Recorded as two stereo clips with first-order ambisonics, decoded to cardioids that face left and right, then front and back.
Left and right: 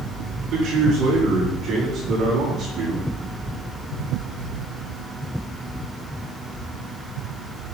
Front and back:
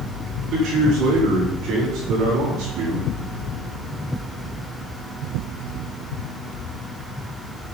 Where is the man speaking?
135° right, 6 m; by 3.1 s 130° right, 4 m.